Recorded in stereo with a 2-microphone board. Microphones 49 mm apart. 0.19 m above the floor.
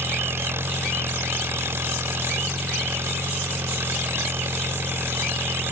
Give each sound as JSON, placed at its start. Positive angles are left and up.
{"t": 0.0, "sound": "an engine running", "side_deg": -60}